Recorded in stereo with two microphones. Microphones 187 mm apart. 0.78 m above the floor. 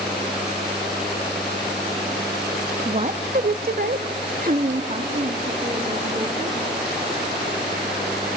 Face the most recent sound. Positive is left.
turn(degrees=-30)  # may be behind; listen again after turning